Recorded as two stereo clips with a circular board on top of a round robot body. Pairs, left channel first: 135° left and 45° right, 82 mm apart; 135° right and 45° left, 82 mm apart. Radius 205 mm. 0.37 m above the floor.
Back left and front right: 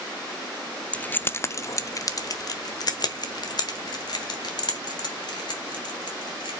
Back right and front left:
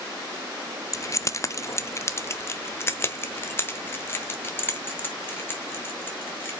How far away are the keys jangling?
About 0.7 m.